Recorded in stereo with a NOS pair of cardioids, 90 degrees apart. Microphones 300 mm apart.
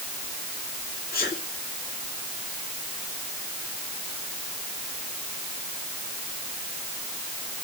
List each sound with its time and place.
1.1 s a sneeze: 30° left, 3.5 m